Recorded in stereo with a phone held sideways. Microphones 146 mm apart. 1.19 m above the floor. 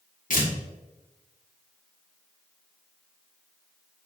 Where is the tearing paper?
65° left (ahead or behind), 1.5 m.